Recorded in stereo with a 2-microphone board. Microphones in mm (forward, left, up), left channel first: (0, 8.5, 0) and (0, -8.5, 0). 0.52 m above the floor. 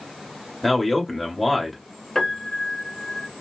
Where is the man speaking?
5° right (ahead or behind), 1.5 m.